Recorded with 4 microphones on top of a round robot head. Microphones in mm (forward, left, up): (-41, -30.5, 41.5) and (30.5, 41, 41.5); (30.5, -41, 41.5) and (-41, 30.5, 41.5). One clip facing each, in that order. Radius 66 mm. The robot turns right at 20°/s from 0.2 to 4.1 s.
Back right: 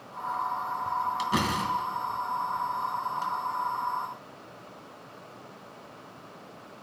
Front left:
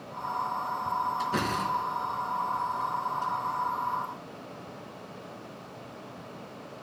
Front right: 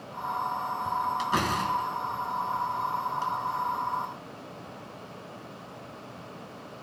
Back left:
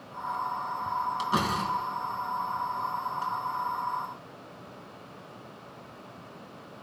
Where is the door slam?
145° right, 4 m; by 3.3 s 100° right, 4 m.